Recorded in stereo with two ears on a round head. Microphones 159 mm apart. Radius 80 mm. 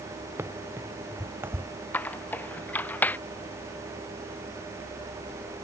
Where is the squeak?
10° left (ahead or behind).